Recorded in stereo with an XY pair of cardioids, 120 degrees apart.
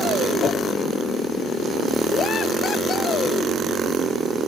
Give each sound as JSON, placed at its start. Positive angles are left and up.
{"t": 0.4, "sound": "a whoosh", "azimuth_deg": 50, "distance_m": 1.3}